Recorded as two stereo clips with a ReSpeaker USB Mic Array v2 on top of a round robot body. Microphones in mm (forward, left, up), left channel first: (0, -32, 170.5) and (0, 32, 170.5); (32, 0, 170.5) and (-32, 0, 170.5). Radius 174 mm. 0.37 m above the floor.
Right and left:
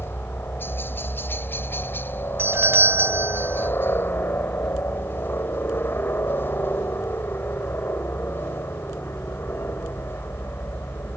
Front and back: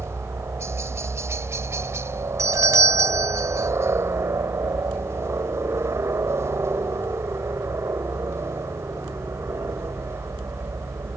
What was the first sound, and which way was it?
A helicopter, 140° right.